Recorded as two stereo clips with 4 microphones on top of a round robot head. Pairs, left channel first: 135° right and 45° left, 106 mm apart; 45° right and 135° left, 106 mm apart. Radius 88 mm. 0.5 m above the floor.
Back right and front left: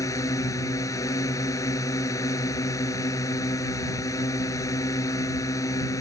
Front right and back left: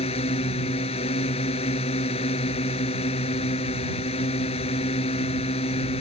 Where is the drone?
75° right.